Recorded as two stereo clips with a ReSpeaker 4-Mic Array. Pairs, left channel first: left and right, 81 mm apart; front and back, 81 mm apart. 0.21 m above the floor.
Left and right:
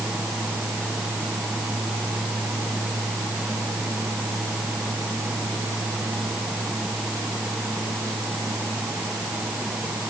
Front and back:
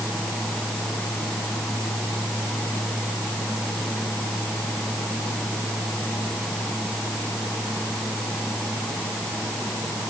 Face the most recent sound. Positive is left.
No sound to turn to.